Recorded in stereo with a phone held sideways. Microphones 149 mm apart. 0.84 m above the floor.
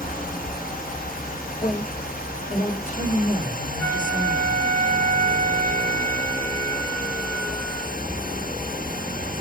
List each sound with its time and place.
0.0 s a fan: 75° left (ahead or behind), 0.7 m
1.6 s a woman speaking: 65° left (ahead or behind), 2.5 m
3.8 s a flute: 65° left (ahead or behind), 5 m